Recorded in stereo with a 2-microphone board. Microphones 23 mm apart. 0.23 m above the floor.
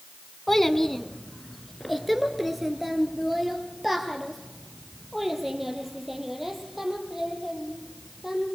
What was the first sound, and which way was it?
A child speaking, 20° left (ahead or behind).